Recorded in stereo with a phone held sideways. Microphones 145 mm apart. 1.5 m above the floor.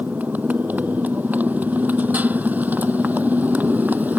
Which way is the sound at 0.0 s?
10° right (ahead or behind).